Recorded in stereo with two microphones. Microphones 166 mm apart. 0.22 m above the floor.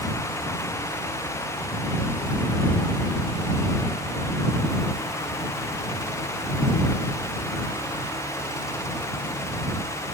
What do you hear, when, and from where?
Only background noise.